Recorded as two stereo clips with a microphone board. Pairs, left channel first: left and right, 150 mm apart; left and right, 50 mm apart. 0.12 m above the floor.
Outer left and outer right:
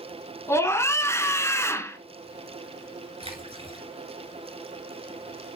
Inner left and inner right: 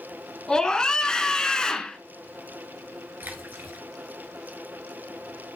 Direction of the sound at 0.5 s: 15° left (ahead or behind).